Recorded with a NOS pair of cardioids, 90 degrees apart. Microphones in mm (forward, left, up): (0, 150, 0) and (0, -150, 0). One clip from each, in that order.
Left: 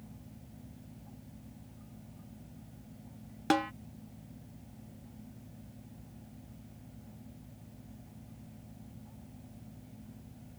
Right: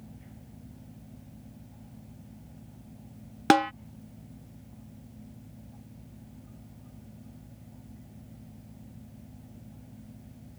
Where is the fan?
15° right.